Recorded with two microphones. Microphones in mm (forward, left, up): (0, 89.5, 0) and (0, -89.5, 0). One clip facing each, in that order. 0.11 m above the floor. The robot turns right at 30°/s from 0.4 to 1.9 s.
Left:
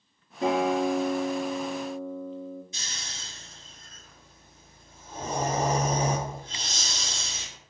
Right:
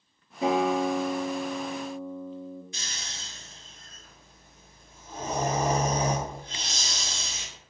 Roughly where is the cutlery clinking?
I don't hear cutlery clinking.